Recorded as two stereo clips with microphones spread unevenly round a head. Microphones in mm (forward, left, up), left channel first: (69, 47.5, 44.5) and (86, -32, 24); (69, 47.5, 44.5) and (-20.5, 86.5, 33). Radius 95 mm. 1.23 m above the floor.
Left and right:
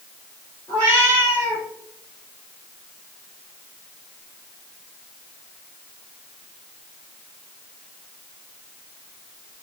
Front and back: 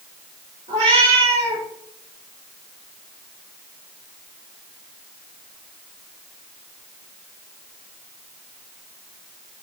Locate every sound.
0.7 s a cat meowing: 170° left, 4 m